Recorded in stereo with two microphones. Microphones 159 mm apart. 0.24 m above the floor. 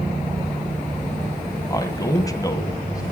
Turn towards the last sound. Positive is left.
turn(degrees=20)  # may be behind; listen again after turning